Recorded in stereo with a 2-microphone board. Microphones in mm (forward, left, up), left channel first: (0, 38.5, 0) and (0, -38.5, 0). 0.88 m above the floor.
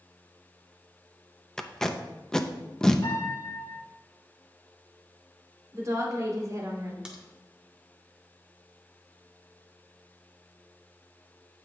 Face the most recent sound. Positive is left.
turn(degrees=-10)  # may be behind; listen again after turning